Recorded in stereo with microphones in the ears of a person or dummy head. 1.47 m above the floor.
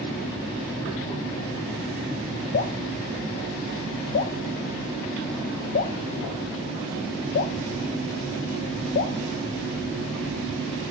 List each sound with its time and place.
2.5 s dripping: 50° left (ahead or behind), 1.0 m